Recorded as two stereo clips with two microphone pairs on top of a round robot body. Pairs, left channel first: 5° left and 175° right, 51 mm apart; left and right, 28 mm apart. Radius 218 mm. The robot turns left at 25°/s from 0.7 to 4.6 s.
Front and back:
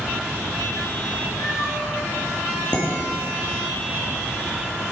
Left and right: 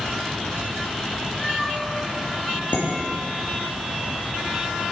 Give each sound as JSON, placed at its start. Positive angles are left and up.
{"t": 1.4, "sound": "a cat meowing", "azimuth_deg": 15, "distance_m": 1.4}
{"t": 2.7, "sound": "dishes clattering", "azimuth_deg": 75, "distance_m": 1.4}